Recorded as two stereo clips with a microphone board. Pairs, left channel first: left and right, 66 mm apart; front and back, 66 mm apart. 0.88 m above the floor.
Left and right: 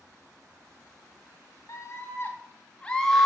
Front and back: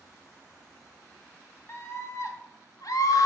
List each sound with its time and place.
1.7 s a scream: 45° left, 1.5 m; by 3.3 s 5° left, 1.2 m